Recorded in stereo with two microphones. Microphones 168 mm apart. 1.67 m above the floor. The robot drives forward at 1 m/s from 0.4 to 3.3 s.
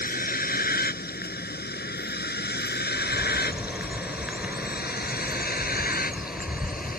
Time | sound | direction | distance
0.0 | a vehicle | 65° left (ahead or behind) | ?
2.9 | a bird | 5° right (ahead or behind) | ?